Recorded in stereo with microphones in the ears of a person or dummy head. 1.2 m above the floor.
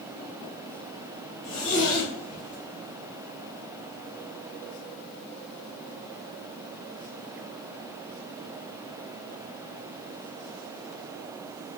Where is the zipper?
40° left (ahead or behind), 1.0 m.